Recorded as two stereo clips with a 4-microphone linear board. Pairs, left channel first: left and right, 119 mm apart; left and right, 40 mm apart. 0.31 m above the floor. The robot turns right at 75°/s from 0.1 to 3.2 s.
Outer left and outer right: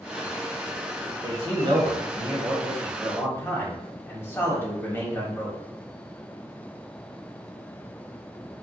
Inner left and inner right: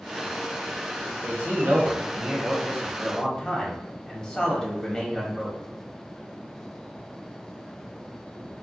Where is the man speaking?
120° right, 1.6 m; by 5.6 s 30° left, 1.6 m.